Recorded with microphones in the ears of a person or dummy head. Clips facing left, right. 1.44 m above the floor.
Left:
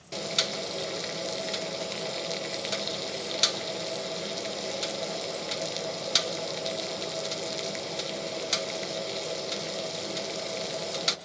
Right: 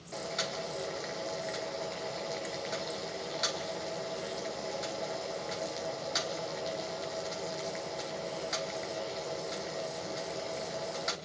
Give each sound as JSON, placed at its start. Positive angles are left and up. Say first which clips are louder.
{"t": 0.1, "sound": "boiling", "louder": "left 3 dB", "side_deg": 40, "distance_m": 1.2}